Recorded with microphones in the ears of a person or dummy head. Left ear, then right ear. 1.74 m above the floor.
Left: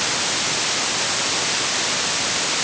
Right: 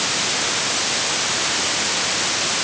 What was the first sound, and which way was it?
Only background noise.